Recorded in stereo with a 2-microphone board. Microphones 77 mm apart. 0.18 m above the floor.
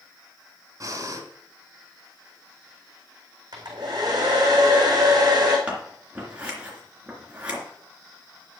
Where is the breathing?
45° right (ahead or behind), 1.8 m.